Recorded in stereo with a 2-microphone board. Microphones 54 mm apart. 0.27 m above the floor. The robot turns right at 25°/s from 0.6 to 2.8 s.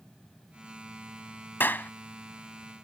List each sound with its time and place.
1.6 s a clap: 40° left (ahead or behind); by 1.9 s 35° left (ahead or behind)